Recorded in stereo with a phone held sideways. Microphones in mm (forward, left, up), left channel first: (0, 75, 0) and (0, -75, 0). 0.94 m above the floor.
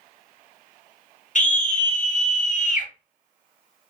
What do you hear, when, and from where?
1.4 s a scream: 50° left (ahead or behind), 1.1 m